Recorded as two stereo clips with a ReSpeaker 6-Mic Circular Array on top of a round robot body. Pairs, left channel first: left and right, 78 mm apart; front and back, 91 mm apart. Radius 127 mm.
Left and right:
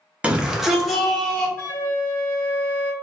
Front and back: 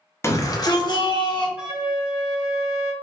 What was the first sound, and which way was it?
A shout, 30° right.